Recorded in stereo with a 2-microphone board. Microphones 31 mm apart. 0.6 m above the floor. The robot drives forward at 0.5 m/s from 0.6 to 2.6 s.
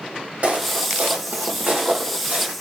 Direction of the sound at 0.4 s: 45° right (ahead or behind).